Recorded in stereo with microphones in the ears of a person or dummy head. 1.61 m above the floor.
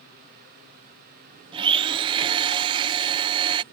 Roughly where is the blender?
Right.